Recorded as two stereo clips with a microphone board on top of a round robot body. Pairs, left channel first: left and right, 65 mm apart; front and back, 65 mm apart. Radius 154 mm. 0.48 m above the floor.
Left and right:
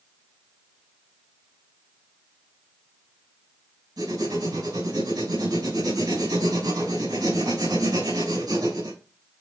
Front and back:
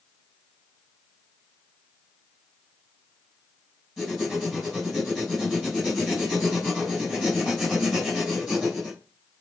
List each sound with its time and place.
4.0 s writing: 90° right, 4.5 m